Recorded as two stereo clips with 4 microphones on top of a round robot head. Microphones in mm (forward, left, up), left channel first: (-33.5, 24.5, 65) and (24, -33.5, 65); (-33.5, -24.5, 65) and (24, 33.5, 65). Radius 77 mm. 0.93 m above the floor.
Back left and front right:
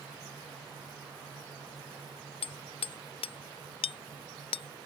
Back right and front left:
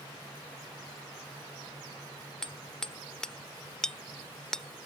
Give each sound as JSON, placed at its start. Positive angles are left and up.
{"t": 2.4, "sound": "hammering", "azimuth_deg": 140}